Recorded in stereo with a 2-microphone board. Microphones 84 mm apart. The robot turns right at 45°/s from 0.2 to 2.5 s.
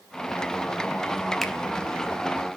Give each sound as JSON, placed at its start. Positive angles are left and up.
{"t": 1.4, "sound": "a finger snap", "side_deg": 5, "distance_m": 0.6}